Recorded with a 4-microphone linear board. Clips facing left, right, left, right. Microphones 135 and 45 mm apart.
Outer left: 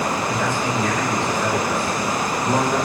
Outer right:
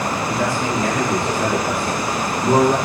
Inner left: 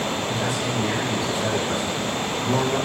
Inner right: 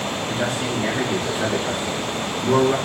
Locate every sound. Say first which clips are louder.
0.3 s a man speaking: outer right 2 dB, inner right 1 dB; 70° right (ahead or behind), 5.5 m; by 2.8 s 75° right (ahead or behind), 7.5 m